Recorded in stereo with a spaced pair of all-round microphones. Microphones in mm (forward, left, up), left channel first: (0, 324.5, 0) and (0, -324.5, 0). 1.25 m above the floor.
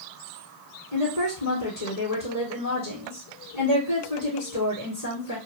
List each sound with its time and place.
0.9 s a woman speaking: 65° left (ahead or behind), 1.4 m